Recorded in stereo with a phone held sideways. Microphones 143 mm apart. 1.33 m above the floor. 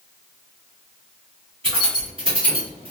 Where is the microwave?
I don't hear a microwave.